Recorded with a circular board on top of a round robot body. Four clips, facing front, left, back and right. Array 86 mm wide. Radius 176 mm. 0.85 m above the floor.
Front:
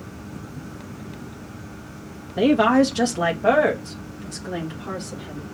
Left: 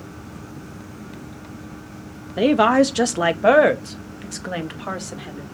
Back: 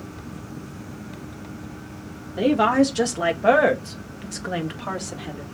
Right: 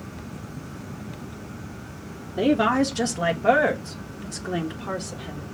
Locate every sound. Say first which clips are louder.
2.4 s a woman speaking: left 5 dB, front 2 dB; 70° left, 1.7 m; by 5.4 s 130° left, 2 m